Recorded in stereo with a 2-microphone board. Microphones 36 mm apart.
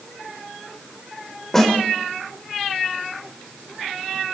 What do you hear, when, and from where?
1.5 s a snare drum: 10° left (ahead or behind), 4 m